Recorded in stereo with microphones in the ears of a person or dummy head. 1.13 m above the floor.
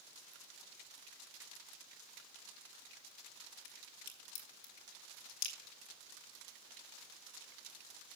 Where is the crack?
75° left (ahead or behind), 2.5 m.